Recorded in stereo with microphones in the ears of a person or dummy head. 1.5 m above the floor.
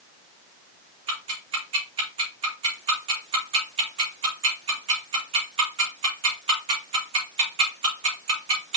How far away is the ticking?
About 3.5 m.